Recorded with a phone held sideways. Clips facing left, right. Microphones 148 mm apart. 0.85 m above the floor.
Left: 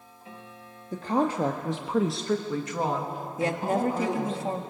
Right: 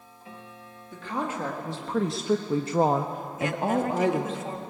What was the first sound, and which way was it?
A woman speaking, 45° left (ahead or behind).